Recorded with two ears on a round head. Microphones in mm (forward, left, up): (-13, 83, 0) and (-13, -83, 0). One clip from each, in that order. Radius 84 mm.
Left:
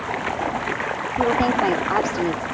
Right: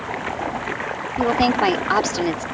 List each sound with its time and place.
0.0 s running water: 5° left (ahead or behind)
1.2 s a woman speaking: 85° right